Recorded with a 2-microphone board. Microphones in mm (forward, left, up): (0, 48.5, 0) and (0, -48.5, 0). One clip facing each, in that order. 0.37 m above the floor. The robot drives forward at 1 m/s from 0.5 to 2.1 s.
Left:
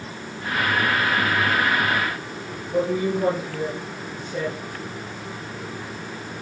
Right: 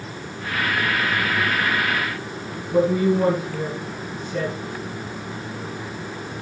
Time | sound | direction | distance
2.7 | a woman speaking | 60° right (ahead or behind) | 4.5 m